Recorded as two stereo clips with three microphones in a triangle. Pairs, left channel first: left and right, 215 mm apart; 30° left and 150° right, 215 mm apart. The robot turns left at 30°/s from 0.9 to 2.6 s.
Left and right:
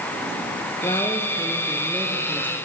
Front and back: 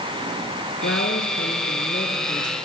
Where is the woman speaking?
20° left, 4 m; by 2.5 s 25° right, 4 m.